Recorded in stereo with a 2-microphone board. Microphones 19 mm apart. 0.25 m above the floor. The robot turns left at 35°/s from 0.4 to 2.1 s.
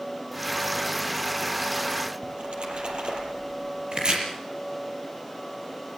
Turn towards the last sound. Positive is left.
turn(degrees=-55)  # may be behind; listen again after turning